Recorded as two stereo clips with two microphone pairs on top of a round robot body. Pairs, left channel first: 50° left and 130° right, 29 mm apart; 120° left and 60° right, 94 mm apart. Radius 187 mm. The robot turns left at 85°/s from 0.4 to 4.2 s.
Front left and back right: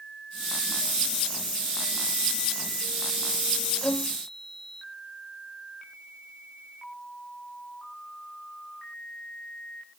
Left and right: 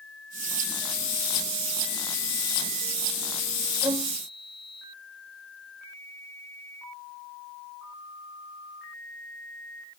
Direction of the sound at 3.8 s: Straight ahead.